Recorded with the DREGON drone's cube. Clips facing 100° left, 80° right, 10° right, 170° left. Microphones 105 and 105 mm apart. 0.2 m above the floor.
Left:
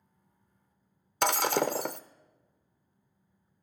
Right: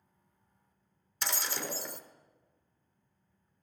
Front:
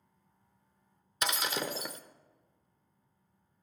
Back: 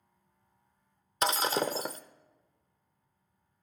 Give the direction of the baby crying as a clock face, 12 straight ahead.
No baby crying in this recording.